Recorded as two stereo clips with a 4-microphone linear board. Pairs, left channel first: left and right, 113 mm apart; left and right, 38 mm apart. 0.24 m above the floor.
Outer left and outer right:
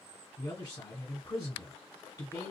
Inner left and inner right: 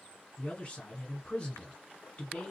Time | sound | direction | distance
0.4 | a man speaking | 35° left (ahead or behind) | 1.6 m